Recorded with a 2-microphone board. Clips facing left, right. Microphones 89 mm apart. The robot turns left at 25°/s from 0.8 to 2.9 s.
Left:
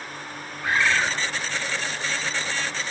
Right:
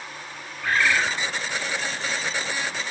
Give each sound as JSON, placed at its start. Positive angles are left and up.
{"t": 0.6, "sound": "a bird", "side_deg": 20, "distance_m": 1.2}